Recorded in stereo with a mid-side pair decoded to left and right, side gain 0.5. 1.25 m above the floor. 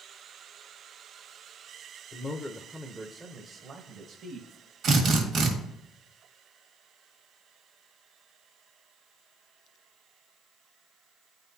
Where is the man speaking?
35° left, 0.7 m; by 4.5 s 55° right, 1.4 m.